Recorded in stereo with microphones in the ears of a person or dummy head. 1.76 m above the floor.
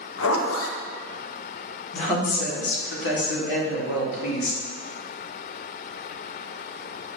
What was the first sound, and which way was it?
A zipper, 80° left.